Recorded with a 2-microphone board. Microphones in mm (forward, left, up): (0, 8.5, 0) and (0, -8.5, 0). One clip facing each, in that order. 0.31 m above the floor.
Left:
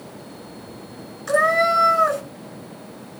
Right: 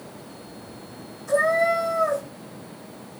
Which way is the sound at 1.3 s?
80° left.